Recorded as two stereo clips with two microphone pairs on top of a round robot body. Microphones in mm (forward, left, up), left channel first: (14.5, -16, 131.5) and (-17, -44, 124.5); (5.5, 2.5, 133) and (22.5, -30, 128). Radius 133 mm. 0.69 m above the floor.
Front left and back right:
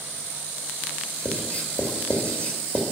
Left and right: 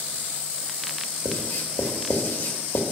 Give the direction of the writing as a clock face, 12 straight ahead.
9 o'clock.